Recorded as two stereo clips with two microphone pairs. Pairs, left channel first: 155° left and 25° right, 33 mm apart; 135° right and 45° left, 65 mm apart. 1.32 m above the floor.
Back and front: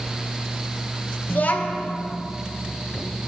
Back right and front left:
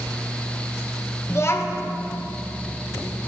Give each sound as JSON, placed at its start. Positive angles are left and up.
{"t": 1.3, "sound": "a child speaking", "azimuth_deg": 180, "distance_m": 0.8}